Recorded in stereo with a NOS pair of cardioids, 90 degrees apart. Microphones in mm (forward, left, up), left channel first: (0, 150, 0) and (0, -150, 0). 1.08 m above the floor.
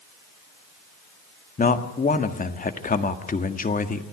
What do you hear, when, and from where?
1.6 s a man speaking: 25° left, 1.7 m